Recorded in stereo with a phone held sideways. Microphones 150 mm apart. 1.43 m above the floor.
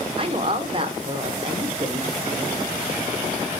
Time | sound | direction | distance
0.2 | a woman speaking | 40° right (ahead or behind) | 1.0 m